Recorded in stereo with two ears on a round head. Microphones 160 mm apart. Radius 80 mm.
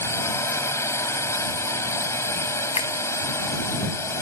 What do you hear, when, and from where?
0.0 s a drone: 15° left (ahead or behind)
2.8 s a finger snap: 30° left (ahead or behind)